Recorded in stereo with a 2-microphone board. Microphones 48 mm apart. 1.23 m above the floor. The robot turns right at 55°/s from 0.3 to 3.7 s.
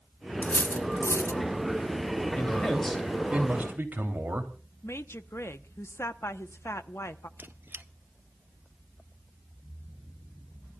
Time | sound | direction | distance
0.4 | cutlery clinking | 35° left (ahead or behind) | 0.8 m
2.4 | a man speaking | 150° left | 3 m
4.8 | a woman speaking | 65° left (ahead or behind) | 0.8 m
7.4 | a squeak | 45° right (ahead or behind) | 0.7 m